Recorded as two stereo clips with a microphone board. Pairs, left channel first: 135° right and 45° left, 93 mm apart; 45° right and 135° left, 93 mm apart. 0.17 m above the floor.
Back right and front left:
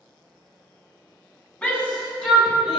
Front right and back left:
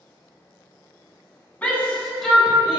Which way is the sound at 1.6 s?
80° right.